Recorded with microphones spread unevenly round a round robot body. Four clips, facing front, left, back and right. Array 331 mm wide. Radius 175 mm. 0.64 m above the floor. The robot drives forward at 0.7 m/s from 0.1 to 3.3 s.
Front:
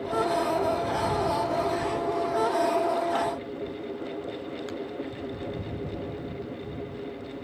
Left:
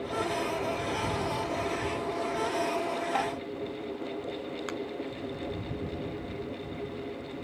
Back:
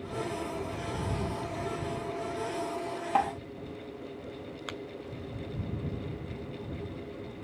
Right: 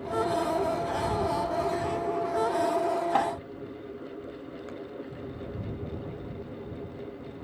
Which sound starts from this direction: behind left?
A finger snap, at 4.7 s.